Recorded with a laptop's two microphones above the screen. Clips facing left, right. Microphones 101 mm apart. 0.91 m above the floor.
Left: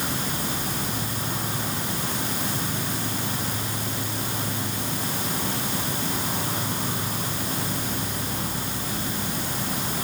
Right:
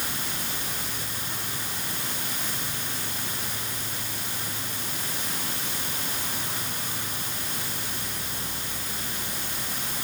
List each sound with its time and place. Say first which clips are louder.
0.0 s an insect: left 6 dB; 30° left (ahead or behind)